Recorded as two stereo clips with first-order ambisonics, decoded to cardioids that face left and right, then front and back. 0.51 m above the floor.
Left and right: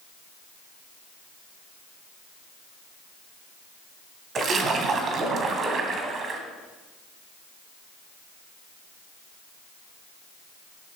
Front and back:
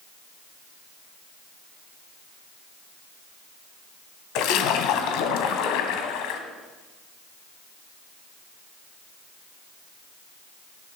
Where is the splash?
25° right, 1.7 m.